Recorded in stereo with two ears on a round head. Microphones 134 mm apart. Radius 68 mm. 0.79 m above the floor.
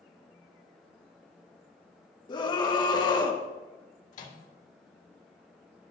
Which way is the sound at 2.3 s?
30° left (ahead or behind).